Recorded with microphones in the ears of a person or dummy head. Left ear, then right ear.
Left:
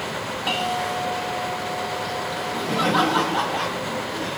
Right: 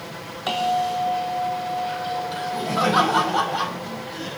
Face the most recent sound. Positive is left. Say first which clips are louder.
# even
turn(degrees=-80)